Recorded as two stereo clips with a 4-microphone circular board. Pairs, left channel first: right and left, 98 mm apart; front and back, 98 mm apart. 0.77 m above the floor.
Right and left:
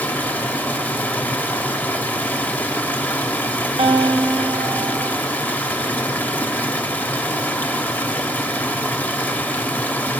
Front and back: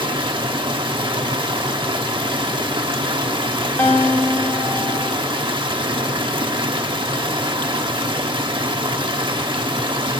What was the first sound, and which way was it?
Running water, 160° right.